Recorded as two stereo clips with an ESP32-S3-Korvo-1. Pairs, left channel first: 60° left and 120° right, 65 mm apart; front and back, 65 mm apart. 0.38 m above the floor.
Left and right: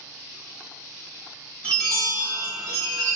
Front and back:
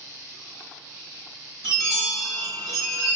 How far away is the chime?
About 1.2 m.